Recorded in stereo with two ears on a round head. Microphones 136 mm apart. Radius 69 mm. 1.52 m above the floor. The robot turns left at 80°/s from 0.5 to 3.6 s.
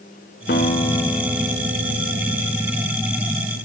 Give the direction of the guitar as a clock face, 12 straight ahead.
10 o'clock.